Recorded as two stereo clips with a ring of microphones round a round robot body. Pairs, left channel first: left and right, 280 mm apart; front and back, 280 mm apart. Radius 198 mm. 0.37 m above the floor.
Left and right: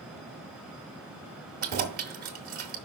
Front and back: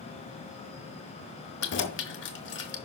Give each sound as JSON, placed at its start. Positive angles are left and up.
{"t": 1.6, "sound": "keys jangling", "azimuth_deg": -35, "distance_m": 1.0}